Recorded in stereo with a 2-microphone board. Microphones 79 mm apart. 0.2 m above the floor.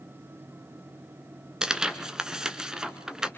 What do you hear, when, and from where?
1.6 s tearing paper: 10° right (ahead or behind), 1.5 m